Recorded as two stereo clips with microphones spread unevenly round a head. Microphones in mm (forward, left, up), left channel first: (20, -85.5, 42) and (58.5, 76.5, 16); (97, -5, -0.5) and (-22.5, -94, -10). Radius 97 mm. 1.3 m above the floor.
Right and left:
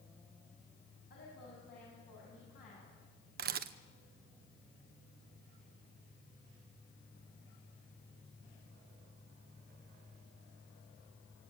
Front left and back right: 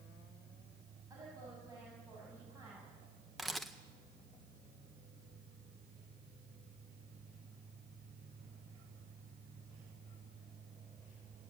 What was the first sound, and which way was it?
A woman speaking, 75° right.